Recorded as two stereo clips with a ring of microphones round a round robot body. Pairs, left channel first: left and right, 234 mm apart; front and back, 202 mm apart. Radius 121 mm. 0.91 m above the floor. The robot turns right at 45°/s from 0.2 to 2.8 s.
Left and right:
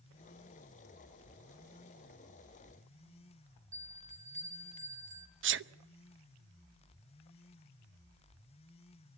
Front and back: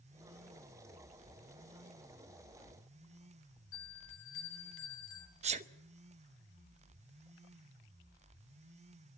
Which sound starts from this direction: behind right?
A sneeze, at 5.4 s.